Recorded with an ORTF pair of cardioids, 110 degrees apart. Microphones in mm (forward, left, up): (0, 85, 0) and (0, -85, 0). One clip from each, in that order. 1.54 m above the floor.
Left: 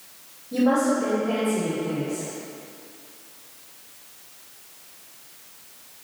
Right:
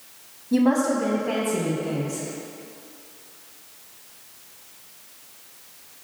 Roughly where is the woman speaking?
Ahead right.